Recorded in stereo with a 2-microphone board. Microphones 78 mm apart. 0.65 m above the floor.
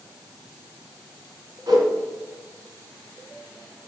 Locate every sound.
1.7 s a whoosh: 55° right (ahead or behind), 2 m